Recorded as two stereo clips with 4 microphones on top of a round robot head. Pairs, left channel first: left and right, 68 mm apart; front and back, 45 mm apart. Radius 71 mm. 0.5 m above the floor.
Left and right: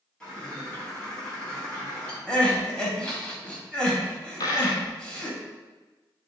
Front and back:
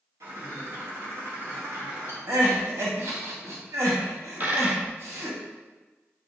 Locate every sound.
0.2 s a bird: 170° left, 3.5 m
2.3 s crying: 170° left, 1.9 m
4.4 s a dropped coin: 130° left, 1.2 m